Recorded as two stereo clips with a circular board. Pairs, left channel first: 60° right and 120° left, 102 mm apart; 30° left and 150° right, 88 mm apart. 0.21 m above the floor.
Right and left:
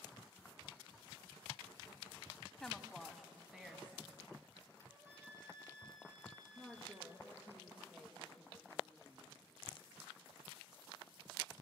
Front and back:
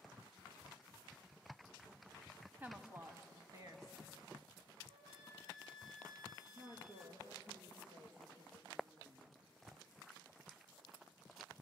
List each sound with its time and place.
2.6 s a woman speaking: 135° right, 1.0 m; by 4.7 s 170° right, 1.8 m
4.9 s a flute: 175° right, 5.5 m
6.5 s a woman speaking: 160° right, 5 m